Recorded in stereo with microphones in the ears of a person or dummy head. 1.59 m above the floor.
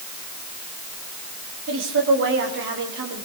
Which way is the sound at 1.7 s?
60° right (ahead or behind).